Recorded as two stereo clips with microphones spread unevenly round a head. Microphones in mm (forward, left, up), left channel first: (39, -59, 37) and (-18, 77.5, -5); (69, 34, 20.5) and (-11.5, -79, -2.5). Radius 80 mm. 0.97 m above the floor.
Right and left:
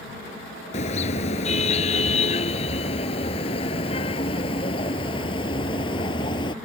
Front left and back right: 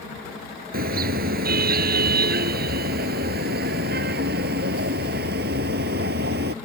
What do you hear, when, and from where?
0.7 s a car horn: 115° right; by 6.5 s 125° right